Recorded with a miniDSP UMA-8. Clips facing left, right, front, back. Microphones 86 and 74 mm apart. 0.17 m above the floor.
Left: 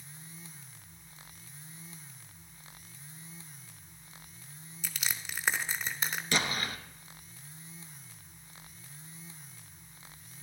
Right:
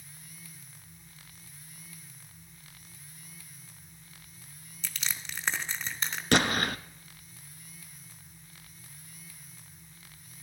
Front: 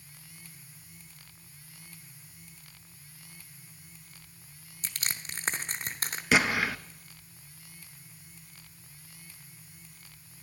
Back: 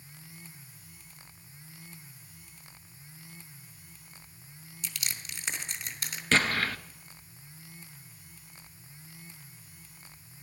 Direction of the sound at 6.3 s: 80° right.